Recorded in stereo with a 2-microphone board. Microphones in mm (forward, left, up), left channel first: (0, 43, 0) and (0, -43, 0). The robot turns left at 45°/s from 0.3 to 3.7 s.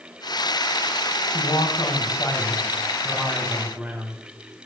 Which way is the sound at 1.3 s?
85° left.